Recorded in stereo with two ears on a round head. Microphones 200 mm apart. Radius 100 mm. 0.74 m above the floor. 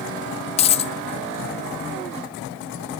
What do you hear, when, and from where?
0.6 s a dropped coin: 30° left (ahead or behind), 0.7 m